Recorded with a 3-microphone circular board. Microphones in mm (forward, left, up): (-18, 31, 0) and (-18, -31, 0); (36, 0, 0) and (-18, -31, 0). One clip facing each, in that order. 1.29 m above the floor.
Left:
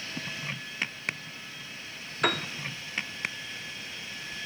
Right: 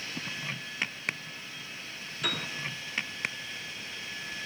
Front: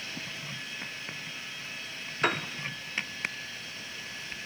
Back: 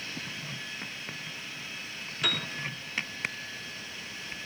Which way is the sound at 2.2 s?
75° left.